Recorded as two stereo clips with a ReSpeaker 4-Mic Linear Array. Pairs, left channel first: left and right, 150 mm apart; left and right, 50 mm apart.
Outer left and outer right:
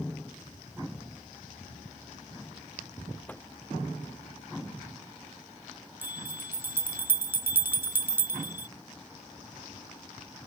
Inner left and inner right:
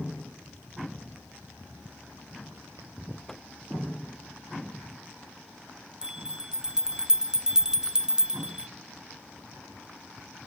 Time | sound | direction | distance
3.3 | a microwave | 10° left (ahead or behind) | ?
6.0 | a bell | 15° right (ahead or behind) | ?